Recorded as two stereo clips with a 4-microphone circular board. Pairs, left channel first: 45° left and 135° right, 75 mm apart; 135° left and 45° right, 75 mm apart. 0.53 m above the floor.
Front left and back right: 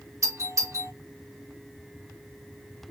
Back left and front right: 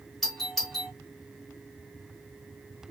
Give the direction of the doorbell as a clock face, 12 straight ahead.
5 o'clock.